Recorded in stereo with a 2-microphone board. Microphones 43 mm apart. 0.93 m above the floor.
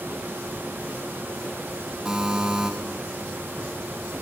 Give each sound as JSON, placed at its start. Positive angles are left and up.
{"t": 2.0, "sound": "a buzzer", "side_deg": -15, "distance_m": 2.5}